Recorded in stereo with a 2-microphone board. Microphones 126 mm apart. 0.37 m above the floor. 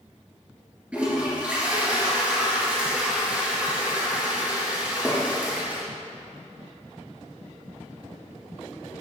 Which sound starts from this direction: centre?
A toilet flushing, at 0.9 s.